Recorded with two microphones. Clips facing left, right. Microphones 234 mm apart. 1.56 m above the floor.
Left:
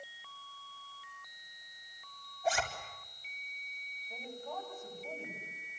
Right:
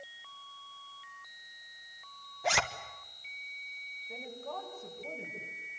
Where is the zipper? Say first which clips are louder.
Even; 80° right, 1.5 m.